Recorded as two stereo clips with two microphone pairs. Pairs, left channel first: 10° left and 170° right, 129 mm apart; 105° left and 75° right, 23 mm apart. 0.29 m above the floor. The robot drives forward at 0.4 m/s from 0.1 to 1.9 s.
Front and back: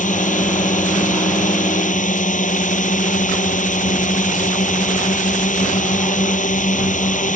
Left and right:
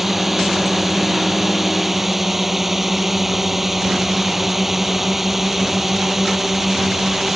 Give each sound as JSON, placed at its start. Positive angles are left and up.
{"t": 0.0, "sound": "a drone", "azimuth_deg": 5}